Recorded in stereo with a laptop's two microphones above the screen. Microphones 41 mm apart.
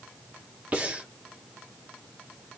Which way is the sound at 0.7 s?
35° right (ahead or behind).